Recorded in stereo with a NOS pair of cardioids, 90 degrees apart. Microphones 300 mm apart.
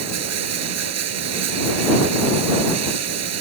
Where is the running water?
65° right.